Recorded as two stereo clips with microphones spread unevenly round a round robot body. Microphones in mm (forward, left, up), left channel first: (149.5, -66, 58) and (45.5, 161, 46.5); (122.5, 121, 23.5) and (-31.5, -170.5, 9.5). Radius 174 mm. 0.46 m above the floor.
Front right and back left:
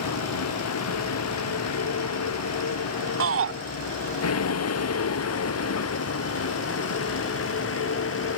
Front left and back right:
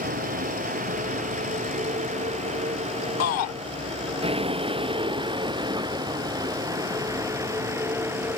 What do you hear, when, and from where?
0.0 s a vehicle: 50° right; by 8.4 s 35° right
3.2 s a shout: 105° left